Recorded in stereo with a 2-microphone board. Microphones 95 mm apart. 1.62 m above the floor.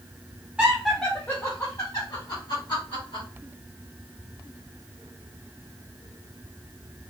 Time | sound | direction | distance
0.6 | laughter | 10° right (ahead or behind) | 0.7 m